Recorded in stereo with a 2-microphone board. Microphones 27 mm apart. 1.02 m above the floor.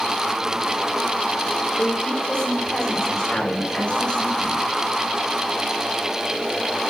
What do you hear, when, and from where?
1.8 s a woman speaking: 20° left (ahead or behind), 3.5 m; by 4.6 s 50° left (ahead or behind), 6 m